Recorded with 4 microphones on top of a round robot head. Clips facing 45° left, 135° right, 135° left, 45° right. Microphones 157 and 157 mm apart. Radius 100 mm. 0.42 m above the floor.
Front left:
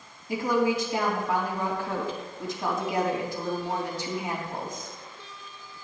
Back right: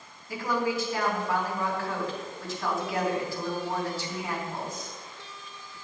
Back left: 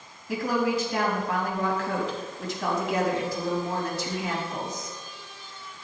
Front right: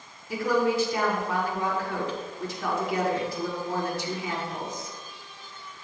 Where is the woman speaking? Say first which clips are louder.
Front left 4 dB, front right 1 dB; 120° left, 3.5 m.